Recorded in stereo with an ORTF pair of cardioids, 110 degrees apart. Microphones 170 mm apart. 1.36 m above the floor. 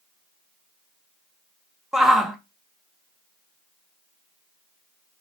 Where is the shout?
Straight ahead, 0.5 m.